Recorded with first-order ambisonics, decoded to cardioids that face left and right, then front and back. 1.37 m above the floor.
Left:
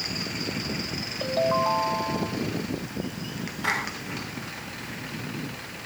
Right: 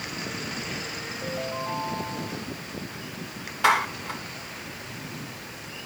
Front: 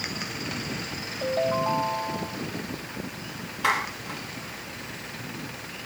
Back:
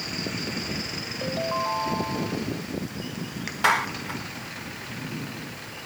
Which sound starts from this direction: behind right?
A clap, at 3.6 s.